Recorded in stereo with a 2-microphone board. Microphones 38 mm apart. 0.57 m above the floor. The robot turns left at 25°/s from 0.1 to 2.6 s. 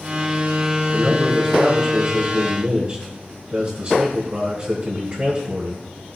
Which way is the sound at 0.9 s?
5° left.